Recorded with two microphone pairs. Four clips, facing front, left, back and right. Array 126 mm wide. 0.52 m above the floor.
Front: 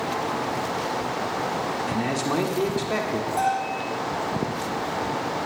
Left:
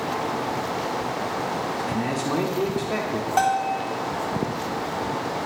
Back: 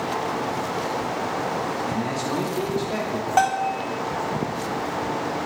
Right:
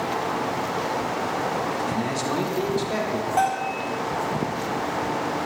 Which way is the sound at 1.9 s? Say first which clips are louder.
Even, front 1 dB; 10° right.